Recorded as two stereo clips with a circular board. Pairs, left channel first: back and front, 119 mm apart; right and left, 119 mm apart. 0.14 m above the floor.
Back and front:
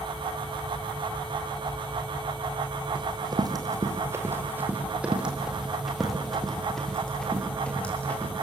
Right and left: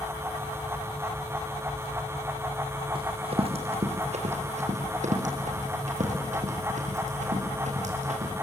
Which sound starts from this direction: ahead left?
Running footsteps, at 3.0 s.